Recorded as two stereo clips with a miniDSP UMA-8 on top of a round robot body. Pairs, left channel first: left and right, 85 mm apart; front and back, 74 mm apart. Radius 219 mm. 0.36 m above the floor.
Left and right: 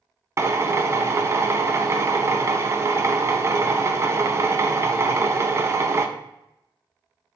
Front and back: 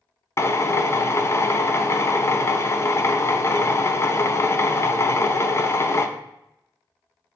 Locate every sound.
0.4 s a drill: 45° right, 0.7 m